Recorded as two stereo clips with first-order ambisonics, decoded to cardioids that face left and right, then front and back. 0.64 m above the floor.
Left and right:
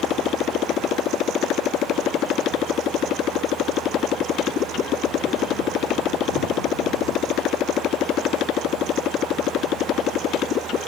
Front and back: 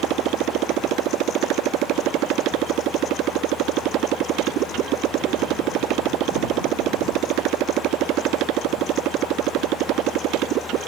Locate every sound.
0.0 s a motorcycle: 140° left